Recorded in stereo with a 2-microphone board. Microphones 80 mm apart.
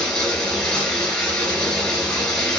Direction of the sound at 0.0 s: 10° left (ahead or behind).